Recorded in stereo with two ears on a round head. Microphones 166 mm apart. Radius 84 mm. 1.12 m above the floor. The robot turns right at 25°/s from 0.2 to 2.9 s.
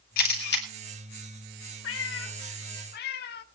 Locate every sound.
0.2 s a camera shutter: 50° left (ahead or behind), 2.5 m; by 0.7 s 60° left (ahead or behind), 2.5 m
1.8 s a cat meowing: 80° left, 1.3 m; by 3.4 s 60° left (ahead or behind), 1.3 m